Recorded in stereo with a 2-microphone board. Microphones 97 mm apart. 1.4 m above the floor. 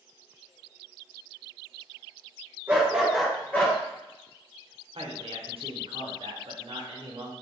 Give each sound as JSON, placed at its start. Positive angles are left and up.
{"t": 2.7, "sound": "a dog barking", "side_deg": -25, "distance_m": 1.0}
{"t": 5.0, "sound": "a man speaking", "side_deg": -70, "distance_m": 0.8}